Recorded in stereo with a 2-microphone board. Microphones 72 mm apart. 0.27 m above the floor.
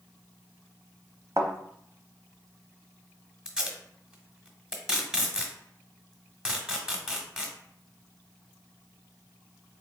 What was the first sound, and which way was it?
A thud, 45° right (ahead or behind).